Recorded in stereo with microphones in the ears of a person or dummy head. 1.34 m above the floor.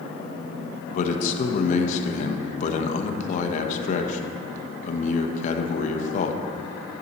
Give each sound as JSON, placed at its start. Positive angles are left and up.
{"t": 0.9, "sound": "a man speaking", "side_deg": 45, "distance_m": 1.0}